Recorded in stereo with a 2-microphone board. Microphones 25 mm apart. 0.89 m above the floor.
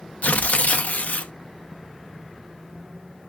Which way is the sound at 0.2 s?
80° left.